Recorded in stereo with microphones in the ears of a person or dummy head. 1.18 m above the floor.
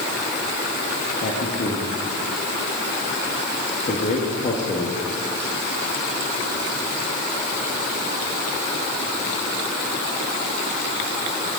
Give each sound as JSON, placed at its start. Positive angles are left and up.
{"t": 1.2, "sound": "a man speaking", "side_deg": 45, "distance_m": 1.7}